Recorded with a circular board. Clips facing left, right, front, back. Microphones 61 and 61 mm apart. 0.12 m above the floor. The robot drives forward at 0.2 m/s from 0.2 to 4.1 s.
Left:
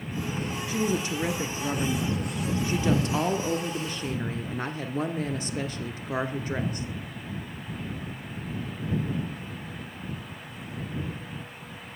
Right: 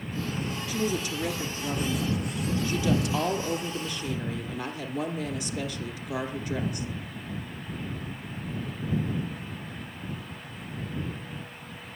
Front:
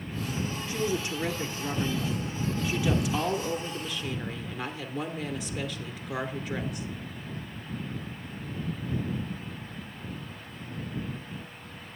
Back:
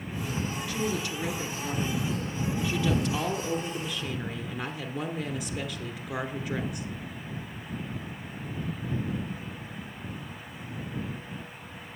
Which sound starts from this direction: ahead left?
A woman speaking, at 0.7 s.